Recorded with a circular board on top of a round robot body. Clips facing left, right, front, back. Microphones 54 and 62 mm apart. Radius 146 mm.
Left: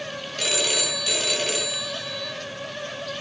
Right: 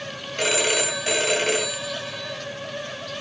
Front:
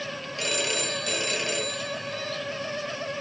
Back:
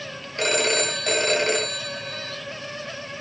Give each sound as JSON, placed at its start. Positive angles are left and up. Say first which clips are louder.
{"t": 0.4, "sound": "a phone ringing", "louder": "right 4 dB, back 7 dB", "azimuth_deg": -145, "distance_m": 1.7}